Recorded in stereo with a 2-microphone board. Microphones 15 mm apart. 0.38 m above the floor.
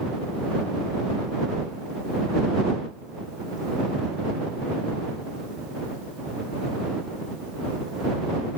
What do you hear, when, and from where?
Only background noise.